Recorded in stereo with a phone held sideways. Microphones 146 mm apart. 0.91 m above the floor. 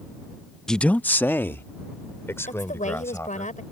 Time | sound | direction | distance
0.7 | a man speaking | 5° left (ahead or behind) | ?
2.5 | a woman speaking | 60° left (ahead or behind) | ?